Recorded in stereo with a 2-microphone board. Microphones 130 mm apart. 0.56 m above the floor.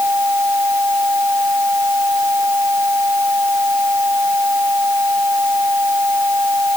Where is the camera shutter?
I don't hear a camera shutter.